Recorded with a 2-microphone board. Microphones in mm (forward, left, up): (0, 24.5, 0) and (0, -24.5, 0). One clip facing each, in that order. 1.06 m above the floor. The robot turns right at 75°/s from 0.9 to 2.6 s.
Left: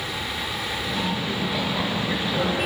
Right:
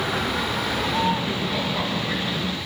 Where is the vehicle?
45° right; by 2.7 s 80° left.